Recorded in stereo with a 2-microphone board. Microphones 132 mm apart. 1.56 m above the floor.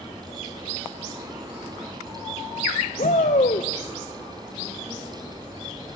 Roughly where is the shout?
Left.